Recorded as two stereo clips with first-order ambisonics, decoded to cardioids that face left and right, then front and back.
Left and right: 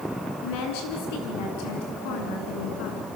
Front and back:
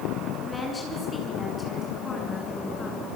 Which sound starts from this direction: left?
A woman speaking, at 0.4 s.